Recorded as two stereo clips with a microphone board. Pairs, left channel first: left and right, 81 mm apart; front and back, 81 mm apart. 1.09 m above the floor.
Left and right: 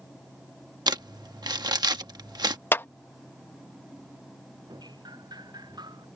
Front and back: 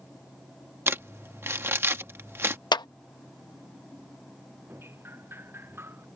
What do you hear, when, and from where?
0.9 s crumpling: 120° right
2.7 s a clap: 30° left
4.7 s dripping: 120° right